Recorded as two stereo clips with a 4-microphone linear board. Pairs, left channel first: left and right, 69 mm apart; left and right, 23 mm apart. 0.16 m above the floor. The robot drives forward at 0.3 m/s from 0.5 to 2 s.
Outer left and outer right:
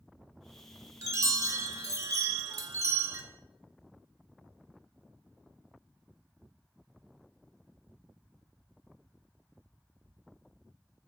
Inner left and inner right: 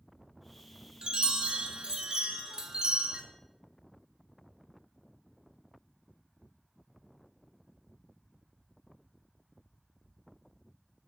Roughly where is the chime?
Right.